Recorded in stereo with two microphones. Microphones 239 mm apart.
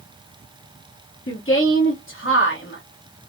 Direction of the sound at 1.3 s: 60° left (ahead or behind).